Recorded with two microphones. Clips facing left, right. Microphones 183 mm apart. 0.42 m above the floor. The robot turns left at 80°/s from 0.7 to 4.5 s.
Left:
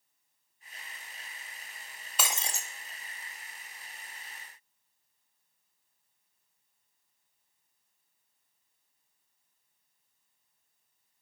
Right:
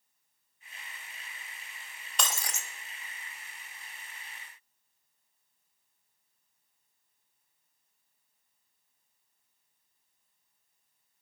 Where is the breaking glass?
175° left, 0.6 m; by 2.7 s 135° left, 0.6 m.